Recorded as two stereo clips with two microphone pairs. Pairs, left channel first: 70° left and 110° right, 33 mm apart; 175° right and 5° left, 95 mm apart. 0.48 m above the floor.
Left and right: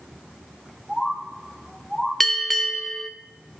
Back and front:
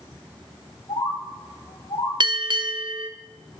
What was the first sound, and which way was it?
A bird, 170° left.